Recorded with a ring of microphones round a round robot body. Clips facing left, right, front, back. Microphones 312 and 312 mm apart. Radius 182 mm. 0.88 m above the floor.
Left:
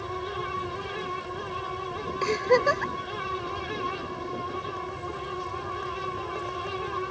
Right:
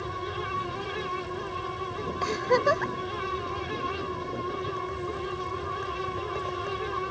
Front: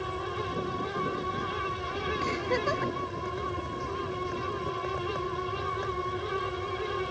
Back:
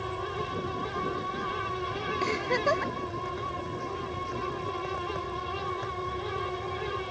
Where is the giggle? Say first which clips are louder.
Left 3 dB, back 2 dB; 150° left.